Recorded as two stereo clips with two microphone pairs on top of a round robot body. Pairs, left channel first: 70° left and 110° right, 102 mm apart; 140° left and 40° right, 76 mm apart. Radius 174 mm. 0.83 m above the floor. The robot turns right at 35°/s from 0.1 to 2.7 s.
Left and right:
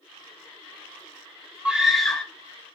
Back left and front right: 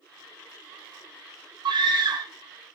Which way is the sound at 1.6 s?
30° right.